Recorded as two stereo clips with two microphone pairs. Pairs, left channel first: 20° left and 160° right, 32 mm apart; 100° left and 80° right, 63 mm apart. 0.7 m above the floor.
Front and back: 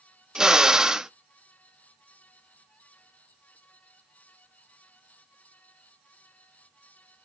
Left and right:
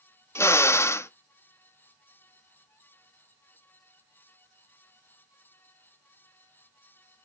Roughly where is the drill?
Behind left.